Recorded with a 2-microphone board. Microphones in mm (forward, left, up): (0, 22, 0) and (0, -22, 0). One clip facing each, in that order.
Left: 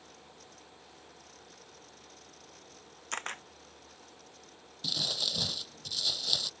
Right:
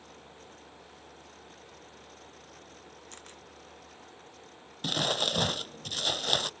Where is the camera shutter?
55° left (ahead or behind).